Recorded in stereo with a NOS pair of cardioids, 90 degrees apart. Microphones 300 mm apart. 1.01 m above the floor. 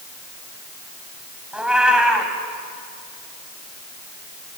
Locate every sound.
1.5 s a cat meowing: 5° right, 4 m